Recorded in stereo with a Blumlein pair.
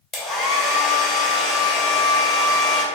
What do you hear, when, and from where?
0.1 s a hair dryer: 25° left, 1.2 m